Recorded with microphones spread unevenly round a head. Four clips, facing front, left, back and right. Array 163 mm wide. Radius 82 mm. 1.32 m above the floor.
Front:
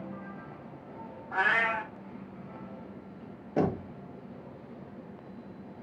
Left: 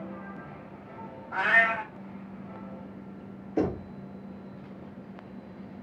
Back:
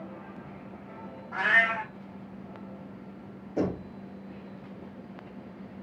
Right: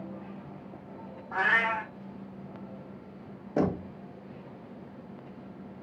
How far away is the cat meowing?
About 2.5 m.